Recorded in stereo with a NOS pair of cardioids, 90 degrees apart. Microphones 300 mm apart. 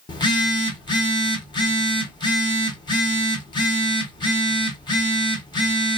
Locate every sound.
0.1 s a phone buzzing: 15° left, 1.1 m